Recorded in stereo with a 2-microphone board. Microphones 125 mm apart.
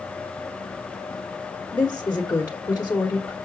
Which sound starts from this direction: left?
A woman speaking, at 1.7 s.